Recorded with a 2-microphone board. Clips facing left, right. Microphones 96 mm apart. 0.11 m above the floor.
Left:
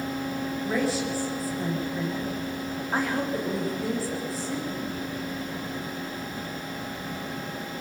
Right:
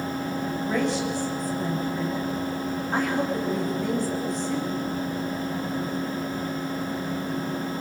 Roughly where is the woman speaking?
Centre.